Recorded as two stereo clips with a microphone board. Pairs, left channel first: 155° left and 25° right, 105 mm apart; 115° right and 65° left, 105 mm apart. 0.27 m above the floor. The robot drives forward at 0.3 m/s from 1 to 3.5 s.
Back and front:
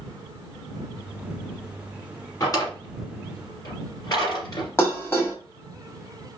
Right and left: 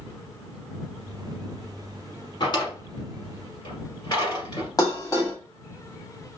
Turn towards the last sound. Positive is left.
turn(degrees=-150)